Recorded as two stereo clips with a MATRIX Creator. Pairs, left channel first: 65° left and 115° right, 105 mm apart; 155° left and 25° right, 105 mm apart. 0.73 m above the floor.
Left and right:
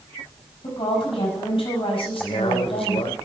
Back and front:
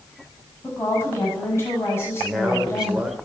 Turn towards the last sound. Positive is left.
turn(degrees=60)